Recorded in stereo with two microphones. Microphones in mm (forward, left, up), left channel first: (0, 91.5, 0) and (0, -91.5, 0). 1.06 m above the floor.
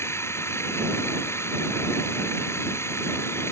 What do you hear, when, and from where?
0.0 s running water: 15° left (ahead or behind)